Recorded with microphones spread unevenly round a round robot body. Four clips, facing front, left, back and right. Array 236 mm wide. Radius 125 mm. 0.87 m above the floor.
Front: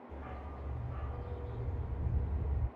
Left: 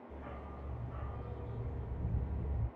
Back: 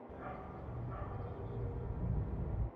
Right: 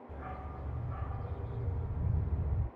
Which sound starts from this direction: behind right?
A dog barking, at 0.1 s.